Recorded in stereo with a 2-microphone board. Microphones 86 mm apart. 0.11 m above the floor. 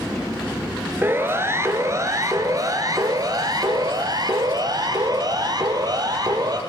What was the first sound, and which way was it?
A siren, 25° right (ahead or behind).